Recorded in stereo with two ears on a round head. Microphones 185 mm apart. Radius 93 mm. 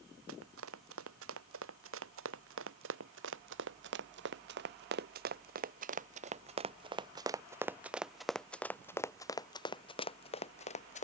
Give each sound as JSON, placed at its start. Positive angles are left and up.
{"t": 0.3, "sound": "running footsteps", "side_deg": -80}